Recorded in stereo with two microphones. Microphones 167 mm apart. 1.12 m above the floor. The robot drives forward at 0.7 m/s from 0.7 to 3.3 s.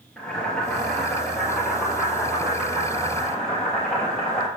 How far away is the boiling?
About 3.5 m.